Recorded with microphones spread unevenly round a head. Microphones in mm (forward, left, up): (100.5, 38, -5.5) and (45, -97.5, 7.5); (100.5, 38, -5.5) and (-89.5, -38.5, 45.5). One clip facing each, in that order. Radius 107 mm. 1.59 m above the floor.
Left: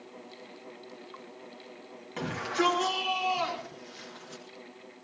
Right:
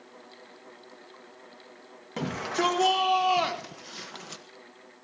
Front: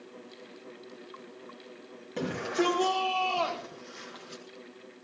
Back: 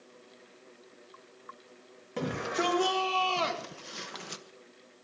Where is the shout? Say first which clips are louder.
Right 1 dB, front 3 dB; 65° right, 2 m; by 4.4 s 140° right, 1.5 m.